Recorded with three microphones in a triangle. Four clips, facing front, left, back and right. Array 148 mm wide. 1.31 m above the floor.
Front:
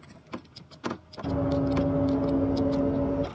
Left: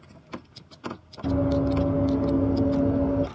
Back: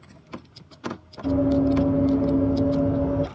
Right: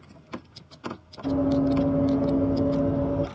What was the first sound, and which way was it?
Running footsteps, 85° left.